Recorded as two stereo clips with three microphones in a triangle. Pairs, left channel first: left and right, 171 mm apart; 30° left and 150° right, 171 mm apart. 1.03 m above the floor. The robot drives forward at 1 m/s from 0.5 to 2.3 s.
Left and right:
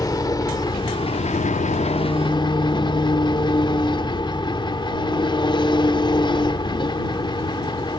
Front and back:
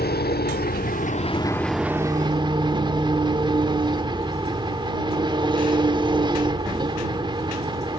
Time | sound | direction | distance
0.0 | an engine running | 25° left | 1.2 m